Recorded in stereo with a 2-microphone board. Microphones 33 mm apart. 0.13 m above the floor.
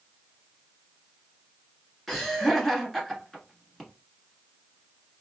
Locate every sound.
2.1 s laughter: 5° left (ahead or behind), 1.3 m